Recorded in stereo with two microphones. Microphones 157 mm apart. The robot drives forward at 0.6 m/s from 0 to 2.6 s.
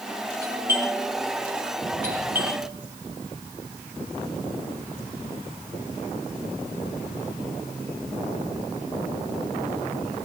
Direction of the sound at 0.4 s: 75° right (ahead or behind).